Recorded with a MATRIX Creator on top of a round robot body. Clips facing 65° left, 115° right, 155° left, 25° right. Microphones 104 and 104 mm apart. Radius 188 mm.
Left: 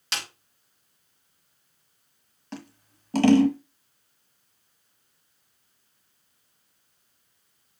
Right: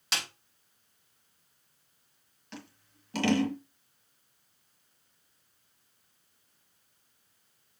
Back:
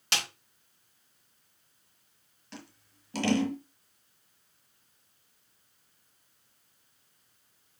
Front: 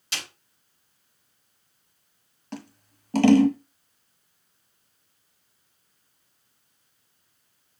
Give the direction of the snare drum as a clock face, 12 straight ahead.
7 o'clock.